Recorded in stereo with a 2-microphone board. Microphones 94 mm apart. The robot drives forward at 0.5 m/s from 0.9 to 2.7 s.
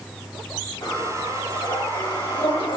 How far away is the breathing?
About 4 m.